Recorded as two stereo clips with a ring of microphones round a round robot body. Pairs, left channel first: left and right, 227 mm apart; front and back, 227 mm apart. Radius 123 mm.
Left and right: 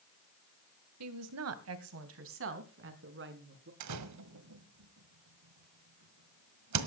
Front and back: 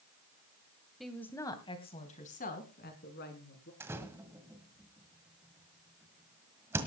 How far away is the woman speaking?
About 2 m.